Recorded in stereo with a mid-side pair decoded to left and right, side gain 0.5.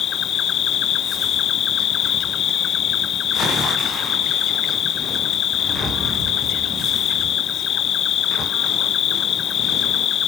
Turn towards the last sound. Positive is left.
turn(degrees=55)